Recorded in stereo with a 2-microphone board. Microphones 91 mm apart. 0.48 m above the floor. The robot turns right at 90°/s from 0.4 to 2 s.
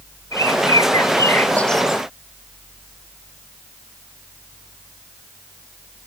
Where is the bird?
55° left; by 2.0 s 160° right.